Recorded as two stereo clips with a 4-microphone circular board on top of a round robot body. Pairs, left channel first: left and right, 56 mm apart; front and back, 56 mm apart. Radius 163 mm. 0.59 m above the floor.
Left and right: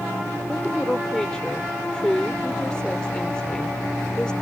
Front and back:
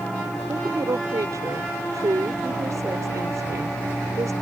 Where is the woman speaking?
165° left.